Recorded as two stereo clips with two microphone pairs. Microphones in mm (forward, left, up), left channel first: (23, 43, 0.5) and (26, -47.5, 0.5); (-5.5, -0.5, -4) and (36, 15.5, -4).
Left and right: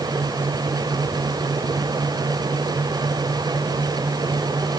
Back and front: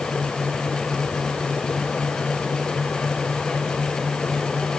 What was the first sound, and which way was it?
Only background noise.